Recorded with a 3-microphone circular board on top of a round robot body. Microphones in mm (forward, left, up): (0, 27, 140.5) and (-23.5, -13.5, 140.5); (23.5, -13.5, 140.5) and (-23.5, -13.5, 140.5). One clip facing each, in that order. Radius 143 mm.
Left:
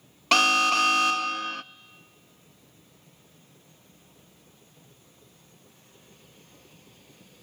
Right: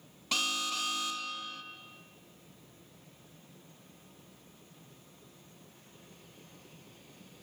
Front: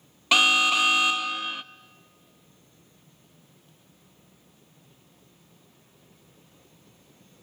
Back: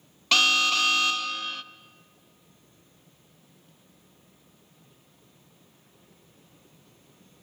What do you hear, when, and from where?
0.3 s an alarm: 75° left, 0.5 m